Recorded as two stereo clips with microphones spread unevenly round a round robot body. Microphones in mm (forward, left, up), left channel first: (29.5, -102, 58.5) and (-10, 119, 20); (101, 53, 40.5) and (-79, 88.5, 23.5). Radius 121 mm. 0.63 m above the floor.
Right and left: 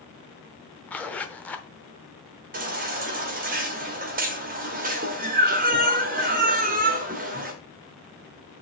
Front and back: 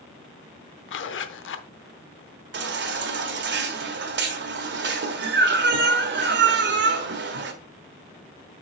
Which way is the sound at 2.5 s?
150° left.